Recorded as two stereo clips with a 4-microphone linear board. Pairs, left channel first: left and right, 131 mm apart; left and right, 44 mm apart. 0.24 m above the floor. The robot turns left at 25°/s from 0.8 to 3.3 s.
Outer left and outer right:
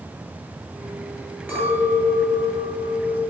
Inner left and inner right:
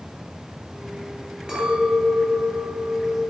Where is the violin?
I don't hear a violin.